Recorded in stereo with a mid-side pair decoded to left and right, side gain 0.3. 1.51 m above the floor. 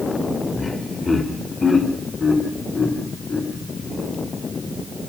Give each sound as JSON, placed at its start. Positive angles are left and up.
{"t": 0.6, "sound": "laughter", "azimuth_deg": 35, "distance_m": 4.5}